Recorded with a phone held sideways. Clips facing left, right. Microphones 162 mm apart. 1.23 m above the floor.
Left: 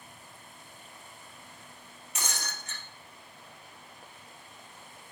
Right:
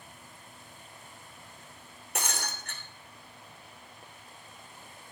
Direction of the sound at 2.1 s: 60° right (ahead or behind).